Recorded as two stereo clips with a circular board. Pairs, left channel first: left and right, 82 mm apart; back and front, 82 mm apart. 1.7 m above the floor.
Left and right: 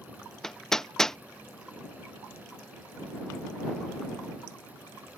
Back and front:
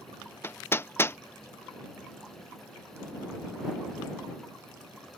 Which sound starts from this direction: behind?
Hammering, at 0.4 s.